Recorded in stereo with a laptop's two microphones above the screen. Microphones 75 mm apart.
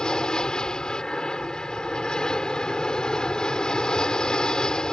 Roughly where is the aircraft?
Centre.